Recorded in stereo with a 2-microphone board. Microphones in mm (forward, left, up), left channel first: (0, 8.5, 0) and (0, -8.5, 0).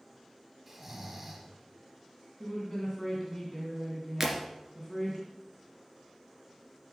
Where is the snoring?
10° right (ahead or behind), 1.8 m.